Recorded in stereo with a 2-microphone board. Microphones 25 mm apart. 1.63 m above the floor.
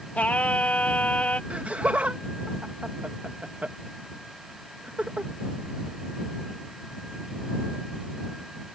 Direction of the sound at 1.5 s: 70° right (ahead or behind).